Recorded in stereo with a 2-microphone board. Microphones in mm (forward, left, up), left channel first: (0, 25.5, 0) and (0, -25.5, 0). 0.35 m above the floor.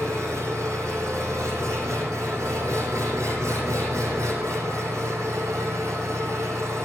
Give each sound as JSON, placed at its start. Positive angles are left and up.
{"t": 0.0, "sound": "an engine running", "side_deg": -85, "distance_m": 6.5}